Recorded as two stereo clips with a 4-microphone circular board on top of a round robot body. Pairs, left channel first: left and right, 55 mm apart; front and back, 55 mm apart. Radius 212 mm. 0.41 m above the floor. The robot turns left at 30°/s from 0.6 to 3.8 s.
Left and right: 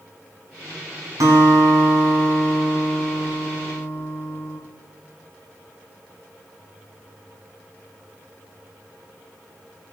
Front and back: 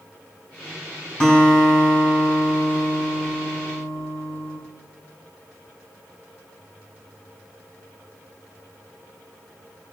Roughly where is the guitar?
Right.